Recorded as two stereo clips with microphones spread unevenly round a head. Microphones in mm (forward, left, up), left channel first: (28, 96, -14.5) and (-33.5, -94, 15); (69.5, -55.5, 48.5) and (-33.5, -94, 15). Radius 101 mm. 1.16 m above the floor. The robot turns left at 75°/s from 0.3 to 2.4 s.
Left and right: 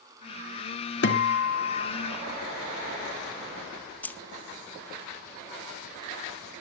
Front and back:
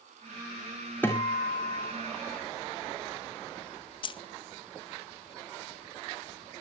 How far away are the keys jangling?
About 0.8 m.